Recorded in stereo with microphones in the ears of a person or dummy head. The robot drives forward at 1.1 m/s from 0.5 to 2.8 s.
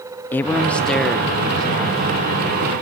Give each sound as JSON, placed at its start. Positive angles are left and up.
{"t": 0.3, "sound": "a man speaking", "side_deg": 15, "distance_m": 0.5}